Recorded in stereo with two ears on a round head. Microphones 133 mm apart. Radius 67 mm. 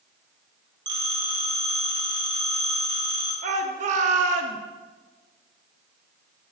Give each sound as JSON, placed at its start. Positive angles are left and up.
{"t": 0.9, "sound": "a phone ringing", "side_deg": -35, "distance_m": 2.5}
{"t": 3.4, "sound": "a shout", "side_deg": -55, "distance_m": 1.0}